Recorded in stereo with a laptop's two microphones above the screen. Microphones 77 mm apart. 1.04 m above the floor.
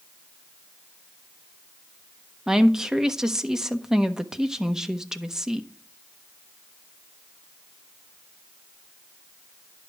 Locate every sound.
2.5 s a woman speaking: 10° right (ahead or behind), 1.2 m